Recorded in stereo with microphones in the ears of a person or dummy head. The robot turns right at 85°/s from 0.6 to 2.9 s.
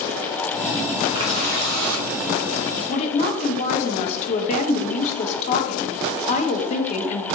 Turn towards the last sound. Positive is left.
turn(degrees=35)  # may be behind; listen again after turning